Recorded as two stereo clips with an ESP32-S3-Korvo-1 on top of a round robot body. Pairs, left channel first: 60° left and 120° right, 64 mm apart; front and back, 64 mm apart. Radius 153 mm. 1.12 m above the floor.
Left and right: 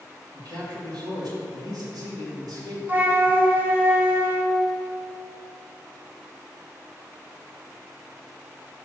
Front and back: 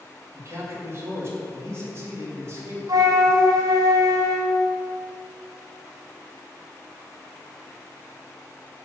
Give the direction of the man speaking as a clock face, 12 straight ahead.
4 o'clock.